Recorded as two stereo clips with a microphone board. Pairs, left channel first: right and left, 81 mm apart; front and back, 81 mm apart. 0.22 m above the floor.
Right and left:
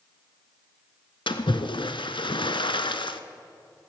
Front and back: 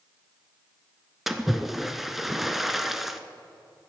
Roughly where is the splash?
Right.